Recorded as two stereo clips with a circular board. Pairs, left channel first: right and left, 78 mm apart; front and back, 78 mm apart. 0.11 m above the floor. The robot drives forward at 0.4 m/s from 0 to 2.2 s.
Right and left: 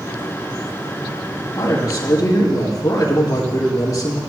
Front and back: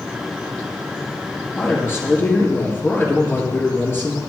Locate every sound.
1.6 s a man speaking: 55° right, 4 m; by 4.2 s 60° right, 4 m